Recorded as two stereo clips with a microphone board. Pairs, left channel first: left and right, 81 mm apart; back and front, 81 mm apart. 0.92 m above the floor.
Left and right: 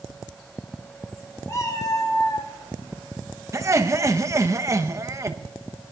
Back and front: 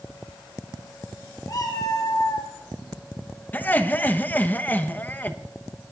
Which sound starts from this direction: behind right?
Laughter, at 3.5 s.